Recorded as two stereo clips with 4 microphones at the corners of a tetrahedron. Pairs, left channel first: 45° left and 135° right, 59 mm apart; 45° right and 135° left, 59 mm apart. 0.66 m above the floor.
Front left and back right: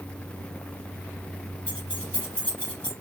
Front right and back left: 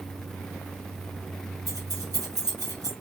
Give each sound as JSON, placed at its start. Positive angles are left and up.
{"t": 1.7, "sound": "keys jangling", "azimuth_deg": 115, "distance_m": 4.5}